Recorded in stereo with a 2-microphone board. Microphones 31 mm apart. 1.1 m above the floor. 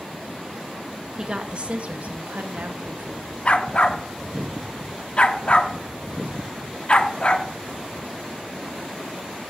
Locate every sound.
1.2 s a woman speaking: 30° right (ahead or behind), 1.2 m; by 3.4 s 80° right, 1.8 m
3.5 s a dog barking: 40° left (ahead or behind), 0.8 m